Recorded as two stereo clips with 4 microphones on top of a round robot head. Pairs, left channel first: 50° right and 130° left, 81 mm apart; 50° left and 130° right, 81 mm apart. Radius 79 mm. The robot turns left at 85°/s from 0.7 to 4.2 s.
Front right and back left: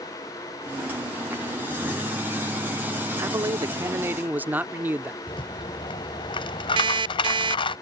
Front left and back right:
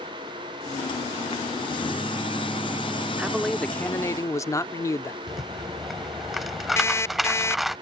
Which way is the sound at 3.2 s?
160° left.